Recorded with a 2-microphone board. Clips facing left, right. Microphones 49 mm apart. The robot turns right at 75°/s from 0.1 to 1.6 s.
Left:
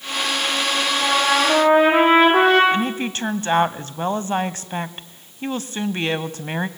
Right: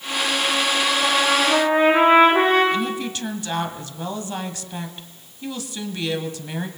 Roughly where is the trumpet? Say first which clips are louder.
Left 3 dB; ahead left.